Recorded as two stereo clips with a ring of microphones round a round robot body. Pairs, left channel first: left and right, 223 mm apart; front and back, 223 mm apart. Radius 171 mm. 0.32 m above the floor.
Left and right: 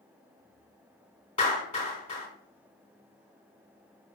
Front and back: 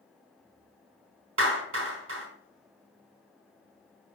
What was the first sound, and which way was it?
A clap, 165° left.